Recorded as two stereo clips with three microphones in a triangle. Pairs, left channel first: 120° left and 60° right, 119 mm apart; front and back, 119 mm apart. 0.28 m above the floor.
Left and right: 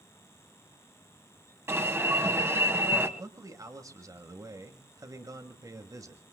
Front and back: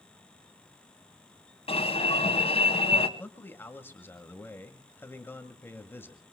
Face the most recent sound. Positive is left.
turn(degrees=-50)